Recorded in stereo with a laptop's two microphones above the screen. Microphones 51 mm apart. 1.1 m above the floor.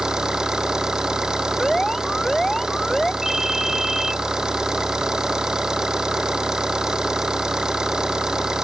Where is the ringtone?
5° right (ahead or behind).